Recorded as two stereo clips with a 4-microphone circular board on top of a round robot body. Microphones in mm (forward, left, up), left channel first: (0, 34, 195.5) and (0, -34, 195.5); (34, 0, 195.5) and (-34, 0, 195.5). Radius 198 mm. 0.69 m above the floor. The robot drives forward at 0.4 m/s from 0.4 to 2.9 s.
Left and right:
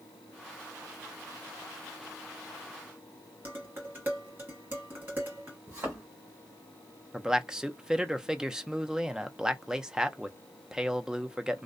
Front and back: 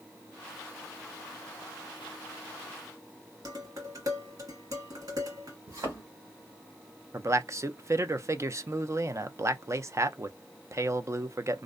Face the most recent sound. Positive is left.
turn(degrees=-165)